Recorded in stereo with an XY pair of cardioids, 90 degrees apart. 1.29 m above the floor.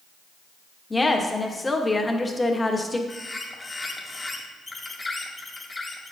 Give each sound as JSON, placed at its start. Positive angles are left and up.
{"t": 0.9, "sound": "a woman speaking", "azimuth_deg": 20, "distance_m": 1.4}
{"t": 3.1, "sound": "a bird", "azimuth_deg": 25, "distance_m": 1.7}